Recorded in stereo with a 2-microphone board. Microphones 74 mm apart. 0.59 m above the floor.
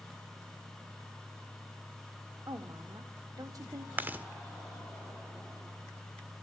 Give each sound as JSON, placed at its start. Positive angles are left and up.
{"t": 2.5, "sound": "a woman speaking", "side_deg": -55, "distance_m": 1.9}
{"t": 4.0, "sound": "chewing", "side_deg": -25, "distance_m": 1.4}